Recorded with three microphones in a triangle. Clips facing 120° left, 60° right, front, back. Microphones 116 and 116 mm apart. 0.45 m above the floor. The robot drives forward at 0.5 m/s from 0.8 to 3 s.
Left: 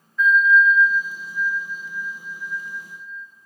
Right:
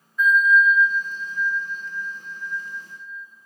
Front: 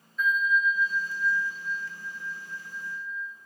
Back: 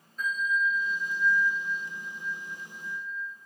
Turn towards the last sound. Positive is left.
turn(degrees=-145)